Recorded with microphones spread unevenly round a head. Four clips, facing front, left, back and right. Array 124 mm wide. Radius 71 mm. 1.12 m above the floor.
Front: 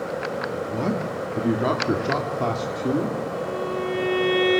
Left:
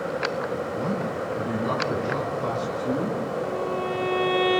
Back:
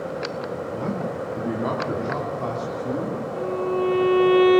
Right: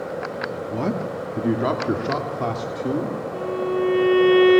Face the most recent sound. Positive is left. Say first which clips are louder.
# right 3 dB, back 3 dB
turn(degrees=-90)